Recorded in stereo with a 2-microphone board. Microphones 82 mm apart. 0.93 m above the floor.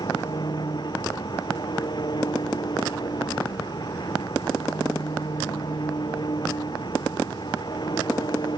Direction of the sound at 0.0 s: 55° left (ahead or behind).